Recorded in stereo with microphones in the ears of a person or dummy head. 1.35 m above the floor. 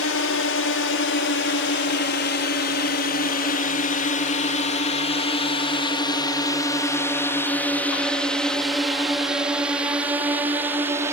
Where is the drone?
65° left (ahead or behind); by 11.1 s 15° right (ahead or behind).